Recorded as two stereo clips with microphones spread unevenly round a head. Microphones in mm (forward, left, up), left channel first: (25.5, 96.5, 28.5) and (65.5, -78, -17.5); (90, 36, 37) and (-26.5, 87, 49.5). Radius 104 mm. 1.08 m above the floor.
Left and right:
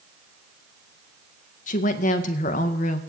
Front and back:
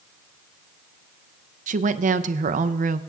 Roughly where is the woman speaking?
Behind.